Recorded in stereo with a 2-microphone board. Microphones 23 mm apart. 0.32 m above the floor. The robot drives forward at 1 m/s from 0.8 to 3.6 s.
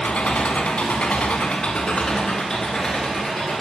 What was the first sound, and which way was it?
An engine running, 70° left (ahead or behind).